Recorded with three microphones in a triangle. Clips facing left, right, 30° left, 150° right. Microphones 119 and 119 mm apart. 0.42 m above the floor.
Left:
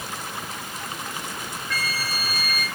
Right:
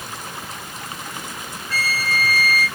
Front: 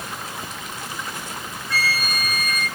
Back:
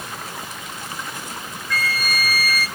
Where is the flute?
35° right, 1.3 m.